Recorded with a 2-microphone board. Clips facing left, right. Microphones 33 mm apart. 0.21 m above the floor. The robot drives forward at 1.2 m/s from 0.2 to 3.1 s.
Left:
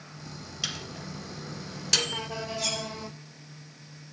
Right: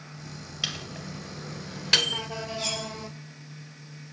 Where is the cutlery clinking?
25° right (ahead or behind), 6.5 m.